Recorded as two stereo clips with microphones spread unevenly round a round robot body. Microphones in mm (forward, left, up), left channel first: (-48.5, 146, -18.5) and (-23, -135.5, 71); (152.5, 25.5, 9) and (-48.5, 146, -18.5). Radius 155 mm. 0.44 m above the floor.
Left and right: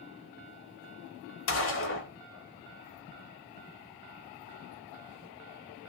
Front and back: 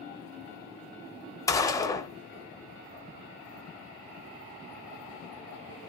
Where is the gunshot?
50° left, 0.5 m.